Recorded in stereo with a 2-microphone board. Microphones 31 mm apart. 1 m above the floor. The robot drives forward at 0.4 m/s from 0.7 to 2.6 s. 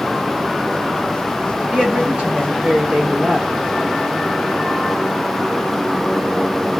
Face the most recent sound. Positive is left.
turn(degrees=-35)  # may be behind; listen again after turning